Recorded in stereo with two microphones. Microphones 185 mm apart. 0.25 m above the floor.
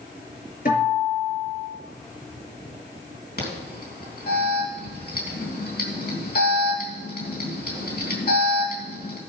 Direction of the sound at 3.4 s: 55° left (ahead or behind).